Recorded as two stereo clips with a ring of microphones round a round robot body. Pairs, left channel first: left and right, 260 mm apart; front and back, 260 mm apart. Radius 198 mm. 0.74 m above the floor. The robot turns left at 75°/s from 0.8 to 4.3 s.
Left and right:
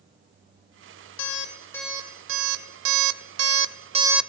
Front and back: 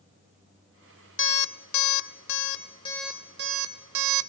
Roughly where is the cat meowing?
No cat meowing in this recording.